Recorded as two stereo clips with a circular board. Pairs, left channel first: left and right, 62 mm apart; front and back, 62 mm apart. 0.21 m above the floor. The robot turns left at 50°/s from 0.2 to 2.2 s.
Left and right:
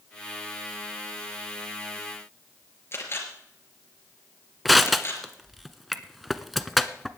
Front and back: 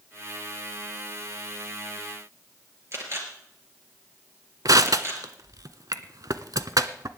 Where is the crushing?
Straight behind, 0.8 m.